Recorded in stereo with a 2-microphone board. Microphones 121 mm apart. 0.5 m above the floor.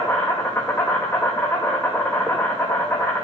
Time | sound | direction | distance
0.0 | an insect | 15° left (ahead or behind) | 2 m